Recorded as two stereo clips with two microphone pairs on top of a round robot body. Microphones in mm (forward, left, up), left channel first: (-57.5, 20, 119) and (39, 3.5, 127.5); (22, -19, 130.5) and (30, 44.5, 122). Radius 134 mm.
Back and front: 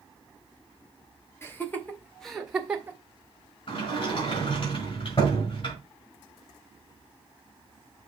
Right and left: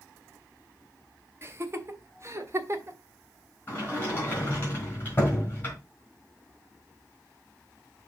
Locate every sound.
1.4 s laughter: 115° left, 2 m; by 3.0 s 65° left, 2.0 m
3.7 s a sliding door: 160° right, 4 m